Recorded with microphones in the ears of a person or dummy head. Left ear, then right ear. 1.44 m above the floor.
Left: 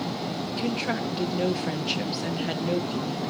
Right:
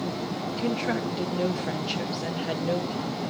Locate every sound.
0.6 s a woman speaking: 5° left (ahead or behind), 0.9 m